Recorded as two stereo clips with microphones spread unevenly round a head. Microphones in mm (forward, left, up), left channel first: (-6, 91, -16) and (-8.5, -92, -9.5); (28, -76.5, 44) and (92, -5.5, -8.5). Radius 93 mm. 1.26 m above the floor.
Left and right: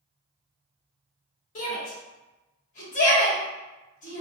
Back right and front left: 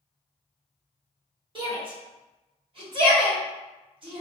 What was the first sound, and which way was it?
A shout, 40° left.